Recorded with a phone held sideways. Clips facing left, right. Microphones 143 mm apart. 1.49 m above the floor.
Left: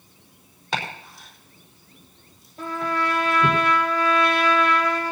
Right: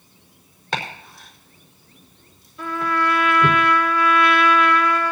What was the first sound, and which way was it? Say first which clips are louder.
Chopping: right 1 dB; centre (ahead or behind).